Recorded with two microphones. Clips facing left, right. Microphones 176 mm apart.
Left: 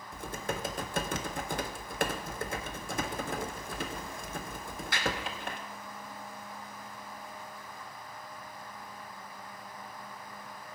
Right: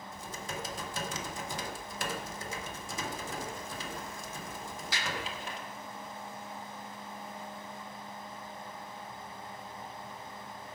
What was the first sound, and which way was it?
Typing on a keyboard, 60° left (ahead or behind).